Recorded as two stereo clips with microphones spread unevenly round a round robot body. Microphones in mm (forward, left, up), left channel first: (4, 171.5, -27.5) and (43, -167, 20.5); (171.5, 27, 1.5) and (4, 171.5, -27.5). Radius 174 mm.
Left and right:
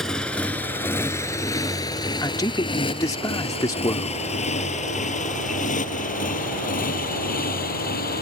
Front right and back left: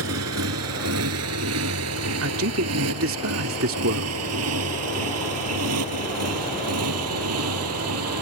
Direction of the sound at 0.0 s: 175° right.